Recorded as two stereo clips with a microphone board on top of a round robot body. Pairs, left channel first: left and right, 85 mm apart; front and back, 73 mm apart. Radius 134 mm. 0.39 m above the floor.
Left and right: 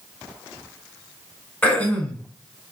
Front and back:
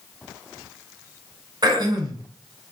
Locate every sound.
1.6 s throat clearing: 160° left, 3.5 m